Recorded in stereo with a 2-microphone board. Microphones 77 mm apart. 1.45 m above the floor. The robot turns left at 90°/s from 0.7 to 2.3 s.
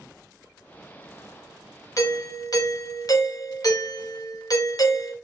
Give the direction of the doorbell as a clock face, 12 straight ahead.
8 o'clock.